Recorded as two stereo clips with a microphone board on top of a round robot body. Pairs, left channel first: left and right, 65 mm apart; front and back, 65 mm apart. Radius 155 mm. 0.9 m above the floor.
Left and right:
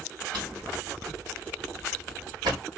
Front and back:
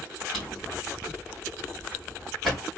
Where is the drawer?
90° right, 1.2 m.